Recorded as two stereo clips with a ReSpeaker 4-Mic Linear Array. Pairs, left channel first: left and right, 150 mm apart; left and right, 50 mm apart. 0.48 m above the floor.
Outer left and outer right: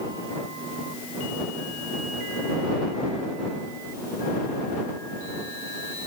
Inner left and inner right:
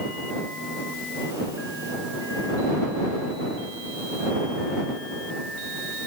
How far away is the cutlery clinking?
I don't hear cutlery clinking.